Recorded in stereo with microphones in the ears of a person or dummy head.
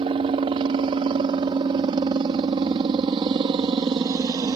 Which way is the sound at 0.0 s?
30° right (ahead or behind).